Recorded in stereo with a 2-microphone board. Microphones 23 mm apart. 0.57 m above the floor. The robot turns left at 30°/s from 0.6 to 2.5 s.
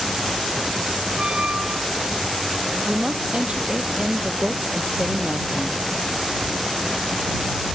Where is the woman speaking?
50° right (ahead or behind).